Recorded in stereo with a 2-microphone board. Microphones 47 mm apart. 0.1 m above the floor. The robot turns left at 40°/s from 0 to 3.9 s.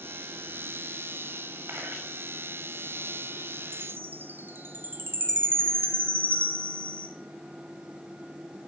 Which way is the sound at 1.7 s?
65° right (ahead or behind).